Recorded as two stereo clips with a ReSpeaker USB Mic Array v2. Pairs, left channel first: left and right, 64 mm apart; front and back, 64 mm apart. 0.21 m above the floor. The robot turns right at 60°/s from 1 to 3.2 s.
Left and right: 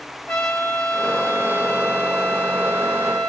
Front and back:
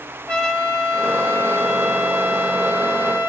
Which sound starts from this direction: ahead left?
A trumpet, at 0.3 s.